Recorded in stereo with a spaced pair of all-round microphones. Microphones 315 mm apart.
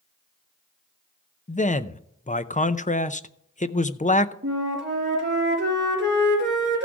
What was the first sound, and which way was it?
A man speaking, 25° left (ahead or behind).